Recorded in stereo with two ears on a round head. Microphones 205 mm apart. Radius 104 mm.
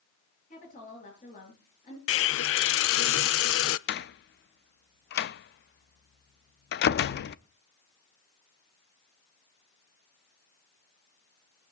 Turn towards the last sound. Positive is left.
turn(degrees=45)  # may be behind; listen again after turning